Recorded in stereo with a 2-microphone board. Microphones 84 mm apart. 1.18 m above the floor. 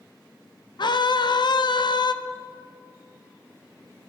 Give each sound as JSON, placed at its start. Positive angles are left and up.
{"t": 0.8, "sound": "a scream", "side_deg": 65, "distance_m": 0.5}